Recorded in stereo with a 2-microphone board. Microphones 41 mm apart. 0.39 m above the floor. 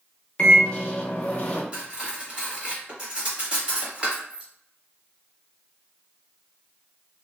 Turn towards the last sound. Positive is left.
turn(degrees=-25)  # may be behind; listen again after turning